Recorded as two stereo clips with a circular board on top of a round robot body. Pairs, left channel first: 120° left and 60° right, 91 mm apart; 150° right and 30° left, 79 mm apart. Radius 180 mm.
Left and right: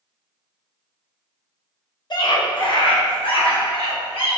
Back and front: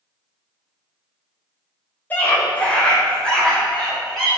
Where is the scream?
145° left, 2.5 m; by 4.4 s 125° left, 5 m.